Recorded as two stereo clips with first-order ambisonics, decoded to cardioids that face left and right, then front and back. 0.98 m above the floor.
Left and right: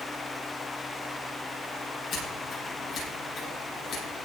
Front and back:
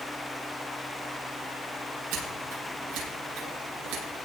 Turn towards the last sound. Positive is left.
turn(degrees=145)